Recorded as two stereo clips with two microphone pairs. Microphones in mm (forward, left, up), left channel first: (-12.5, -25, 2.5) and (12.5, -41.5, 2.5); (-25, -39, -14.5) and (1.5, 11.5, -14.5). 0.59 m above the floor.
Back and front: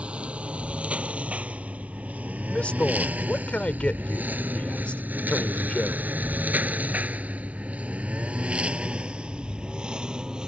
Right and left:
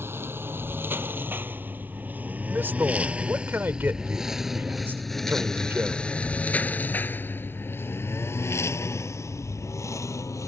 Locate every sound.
0.0 s a lawn mower: 15° left; by 10.5 s 95° right
2.5 s a man speaking: 110° left